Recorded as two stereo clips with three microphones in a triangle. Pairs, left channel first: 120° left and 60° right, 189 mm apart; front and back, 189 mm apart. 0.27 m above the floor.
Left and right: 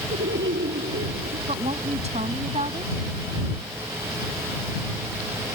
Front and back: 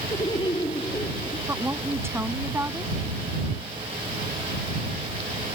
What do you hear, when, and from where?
0.1 s laughter: 65° right
1.5 s a woman speaking: 105° right